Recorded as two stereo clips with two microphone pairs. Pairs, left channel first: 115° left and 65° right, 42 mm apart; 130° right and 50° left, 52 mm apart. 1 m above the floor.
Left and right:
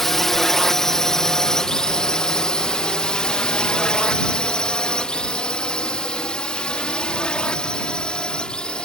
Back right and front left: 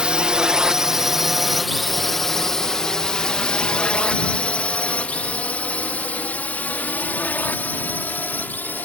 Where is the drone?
45° left; by 8.8 s straight behind.